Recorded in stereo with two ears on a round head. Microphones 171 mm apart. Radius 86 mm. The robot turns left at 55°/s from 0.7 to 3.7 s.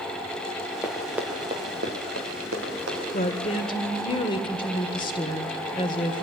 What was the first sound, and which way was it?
Running footsteps, 15° left (ahead or behind).